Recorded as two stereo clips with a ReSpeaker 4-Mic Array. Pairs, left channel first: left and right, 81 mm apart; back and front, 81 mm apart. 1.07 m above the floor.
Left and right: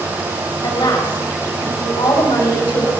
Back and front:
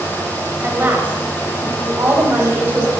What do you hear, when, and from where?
0.6 s a woman speaking: 65° left, 5 m